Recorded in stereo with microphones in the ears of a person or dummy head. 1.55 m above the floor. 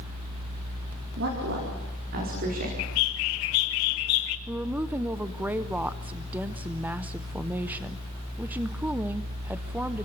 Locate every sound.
1.2 s a woman speaking: 60° right (ahead or behind), 4 m; by 2.7 s 50° right (ahead or behind), 4.5 m
2.8 s a bird: 65° left (ahead or behind), 0.9 m
4.5 s a woman speaking: 10° right (ahead or behind), 0.6 m